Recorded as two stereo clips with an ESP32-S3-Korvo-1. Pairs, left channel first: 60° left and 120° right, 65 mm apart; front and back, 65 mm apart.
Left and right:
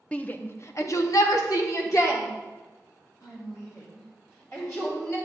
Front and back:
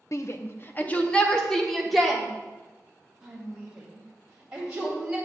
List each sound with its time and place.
0.1 s a shout: 5° right, 0.7 m; by 5.2 s 105° left, 3.5 m